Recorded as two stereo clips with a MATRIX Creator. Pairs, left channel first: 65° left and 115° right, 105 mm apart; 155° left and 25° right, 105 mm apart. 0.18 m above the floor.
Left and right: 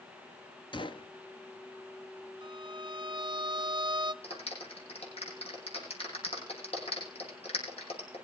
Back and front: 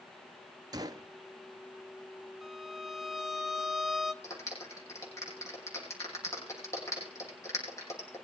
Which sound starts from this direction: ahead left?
A gunshot, at 0.7 s.